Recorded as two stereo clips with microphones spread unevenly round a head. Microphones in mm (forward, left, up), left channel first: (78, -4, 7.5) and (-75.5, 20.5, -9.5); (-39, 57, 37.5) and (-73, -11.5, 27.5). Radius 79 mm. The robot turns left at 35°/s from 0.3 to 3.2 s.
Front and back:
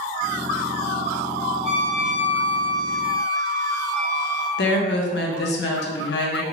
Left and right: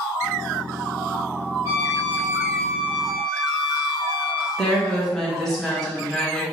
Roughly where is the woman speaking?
Ahead right.